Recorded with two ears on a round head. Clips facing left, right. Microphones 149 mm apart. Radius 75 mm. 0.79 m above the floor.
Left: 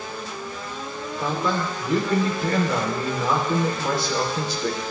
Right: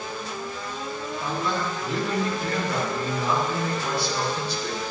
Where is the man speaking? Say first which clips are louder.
Left 4 dB; 60° left (ahead or behind), 1.9 m.